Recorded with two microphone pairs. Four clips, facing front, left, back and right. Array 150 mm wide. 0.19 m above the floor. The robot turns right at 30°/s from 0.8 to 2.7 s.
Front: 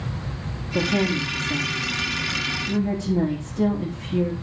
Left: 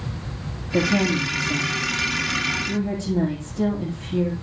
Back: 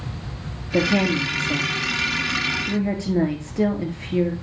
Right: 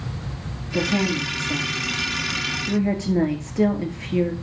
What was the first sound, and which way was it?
A woman speaking, 165° left.